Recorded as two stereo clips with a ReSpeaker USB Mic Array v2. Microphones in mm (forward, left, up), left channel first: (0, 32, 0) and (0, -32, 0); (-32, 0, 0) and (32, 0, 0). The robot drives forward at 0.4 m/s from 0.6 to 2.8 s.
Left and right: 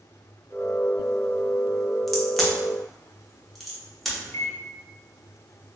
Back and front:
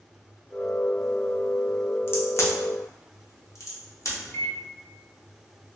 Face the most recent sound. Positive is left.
turn(degrees=130)